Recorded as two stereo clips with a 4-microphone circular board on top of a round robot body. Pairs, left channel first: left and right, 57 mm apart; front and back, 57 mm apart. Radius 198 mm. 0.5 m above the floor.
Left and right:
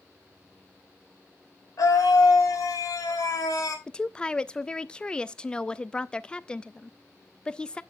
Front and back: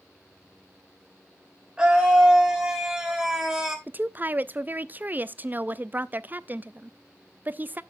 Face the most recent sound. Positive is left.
turn(degrees=150)